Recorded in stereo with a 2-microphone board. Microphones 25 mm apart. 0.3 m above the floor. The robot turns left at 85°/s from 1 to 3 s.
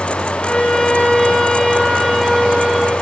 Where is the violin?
100° left, 2.5 m; by 2.9 s 60° right, 2.5 m.